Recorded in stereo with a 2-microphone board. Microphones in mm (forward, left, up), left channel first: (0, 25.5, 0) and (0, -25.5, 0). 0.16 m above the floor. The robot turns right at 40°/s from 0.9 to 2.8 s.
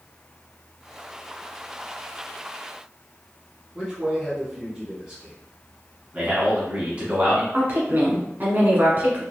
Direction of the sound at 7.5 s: 40° right (ahead or behind).